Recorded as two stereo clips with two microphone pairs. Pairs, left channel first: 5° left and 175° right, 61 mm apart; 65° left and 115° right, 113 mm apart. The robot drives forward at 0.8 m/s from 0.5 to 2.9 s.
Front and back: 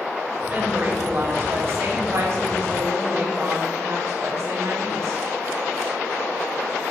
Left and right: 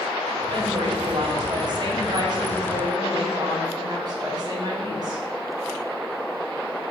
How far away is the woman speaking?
About 1.9 m.